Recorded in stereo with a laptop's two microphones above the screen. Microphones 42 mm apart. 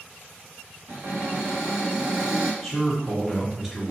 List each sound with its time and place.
0.9 s a cupboard door: 55° right (ahead or behind), 0.9 m
2.6 s a man speaking: 5° right (ahead or behind), 1.2 m